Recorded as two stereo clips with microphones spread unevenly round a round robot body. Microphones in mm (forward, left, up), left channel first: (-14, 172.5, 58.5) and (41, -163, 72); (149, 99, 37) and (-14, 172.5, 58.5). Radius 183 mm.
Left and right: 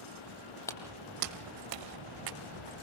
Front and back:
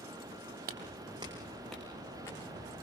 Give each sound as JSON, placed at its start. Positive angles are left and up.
{"t": 0.7, "sound": "footsteps", "azimuth_deg": 180, "distance_m": 0.8}